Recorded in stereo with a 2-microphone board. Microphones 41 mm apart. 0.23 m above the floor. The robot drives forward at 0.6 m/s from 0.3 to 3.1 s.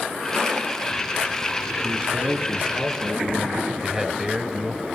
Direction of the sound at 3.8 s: 10° right (ahead or behind).